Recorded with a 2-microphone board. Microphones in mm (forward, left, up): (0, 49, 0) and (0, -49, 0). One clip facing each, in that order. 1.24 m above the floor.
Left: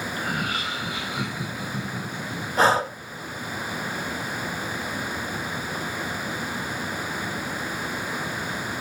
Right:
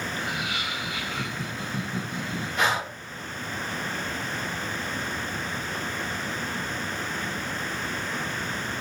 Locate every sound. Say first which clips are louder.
0.2 s laughter: left 3 dB; 50° left (ahead or behind), 1.1 m; by 2.5 s 20° right (ahead or behind), 1.3 m
2.6 s breathing: left 7 dB; 35° left (ahead or behind), 0.7 m